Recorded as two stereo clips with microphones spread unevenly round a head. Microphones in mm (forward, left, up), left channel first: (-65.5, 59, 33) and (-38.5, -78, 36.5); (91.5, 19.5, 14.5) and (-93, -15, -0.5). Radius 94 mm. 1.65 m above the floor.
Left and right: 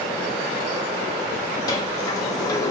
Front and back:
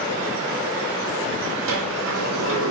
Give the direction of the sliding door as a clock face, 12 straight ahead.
6 o'clock.